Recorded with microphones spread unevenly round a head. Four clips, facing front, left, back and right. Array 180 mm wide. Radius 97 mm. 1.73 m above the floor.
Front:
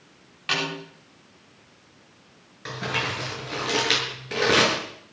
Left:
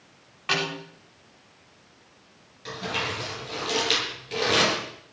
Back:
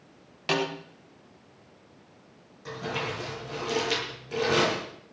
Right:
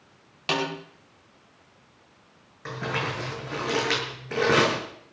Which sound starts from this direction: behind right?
A snare drum, at 0.5 s.